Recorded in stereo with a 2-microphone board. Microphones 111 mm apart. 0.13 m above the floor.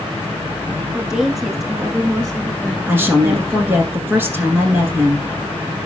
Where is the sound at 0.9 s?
5° right (ahead or behind), 1.1 m; by 3.9 s 10° left (ahead or behind), 1.8 m.